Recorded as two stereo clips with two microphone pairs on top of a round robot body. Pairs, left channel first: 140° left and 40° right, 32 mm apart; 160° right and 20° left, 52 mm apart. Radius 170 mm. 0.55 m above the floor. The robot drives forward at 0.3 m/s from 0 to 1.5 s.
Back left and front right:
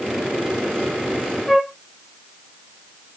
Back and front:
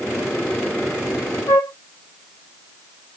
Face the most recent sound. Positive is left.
turn(degrees=-135)